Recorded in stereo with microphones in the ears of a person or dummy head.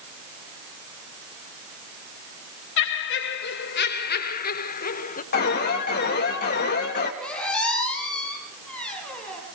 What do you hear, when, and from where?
2.8 s laughter: 65° left (ahead or behind), 2.5 m; by 5.2 s 45° left (ahead or behind), 1.6 m
5.3 s an alarm: 50° left (ahead or behind), 4 m
7.2 s a squeak: 5° left (ahead or behind), 7 m